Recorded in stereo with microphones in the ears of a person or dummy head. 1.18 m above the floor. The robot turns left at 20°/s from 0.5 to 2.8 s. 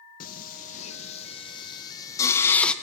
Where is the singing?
50° left (ahead or behind), 1.1 m; by 2.7 s 10° left (ahead or behind), 1.1 m.